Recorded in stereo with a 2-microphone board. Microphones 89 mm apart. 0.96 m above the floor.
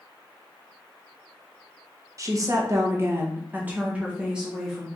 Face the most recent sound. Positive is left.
turn(degrees=-5)  # may be behind; listen again after turning